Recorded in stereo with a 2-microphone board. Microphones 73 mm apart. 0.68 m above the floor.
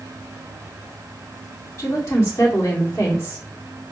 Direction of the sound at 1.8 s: 40° left (ahead or behind).